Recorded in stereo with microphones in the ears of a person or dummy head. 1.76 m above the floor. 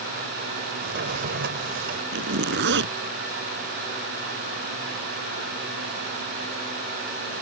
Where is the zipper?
70° right (ahead or behind).